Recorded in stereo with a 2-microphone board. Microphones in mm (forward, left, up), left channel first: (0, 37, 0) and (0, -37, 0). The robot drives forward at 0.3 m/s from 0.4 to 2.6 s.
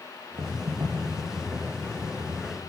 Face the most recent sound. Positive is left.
turn(degrees=-70)  # may be behind; listen again after turning